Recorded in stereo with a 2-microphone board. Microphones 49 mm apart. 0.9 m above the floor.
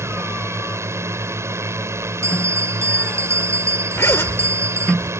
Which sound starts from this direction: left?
A zipper, at 4.0 s.